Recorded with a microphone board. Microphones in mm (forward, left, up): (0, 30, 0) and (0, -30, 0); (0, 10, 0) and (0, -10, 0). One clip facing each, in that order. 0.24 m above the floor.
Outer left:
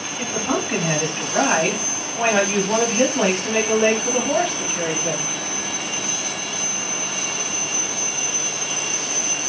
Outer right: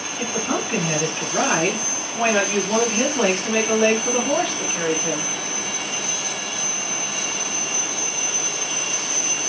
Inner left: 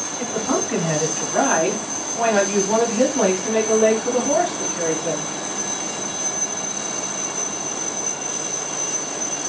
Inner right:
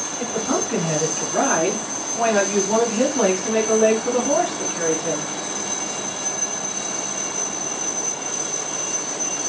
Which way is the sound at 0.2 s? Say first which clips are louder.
Outer left 1 dB, inner left 1 dB; 40° left (ahead or behind).